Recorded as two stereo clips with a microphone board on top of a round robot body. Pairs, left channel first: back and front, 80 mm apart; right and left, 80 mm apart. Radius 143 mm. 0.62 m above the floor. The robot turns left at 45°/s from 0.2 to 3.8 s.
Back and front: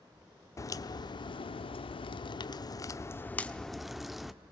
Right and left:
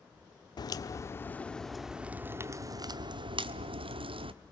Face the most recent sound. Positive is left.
turn(degrees=90)